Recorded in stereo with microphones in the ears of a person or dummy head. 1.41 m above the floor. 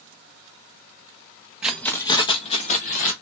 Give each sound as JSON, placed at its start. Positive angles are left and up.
{"t": 1.6, "sound": "keys jangling", "side_deg": -5, "distance_m": 0.7}